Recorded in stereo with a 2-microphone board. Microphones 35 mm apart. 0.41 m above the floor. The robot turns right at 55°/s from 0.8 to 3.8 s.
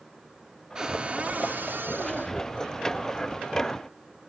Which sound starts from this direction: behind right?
A cupboard door, at 0.8 s.